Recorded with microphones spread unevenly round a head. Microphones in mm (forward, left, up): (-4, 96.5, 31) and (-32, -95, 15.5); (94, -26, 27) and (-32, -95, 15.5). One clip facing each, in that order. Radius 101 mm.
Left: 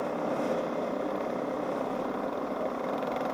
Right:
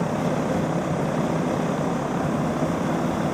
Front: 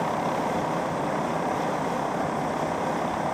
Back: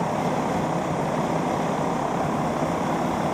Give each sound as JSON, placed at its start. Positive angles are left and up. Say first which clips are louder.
{"t": 0.0, "sound": "an engine running", "louder": "right 6 dB, back 2 dB", "azimuth_deg": -85}